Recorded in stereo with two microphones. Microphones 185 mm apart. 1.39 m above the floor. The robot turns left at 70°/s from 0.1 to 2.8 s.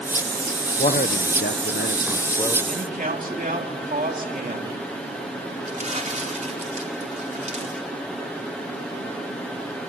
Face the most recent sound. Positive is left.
turn(degrees=-40)  # may be behind; listen again after turning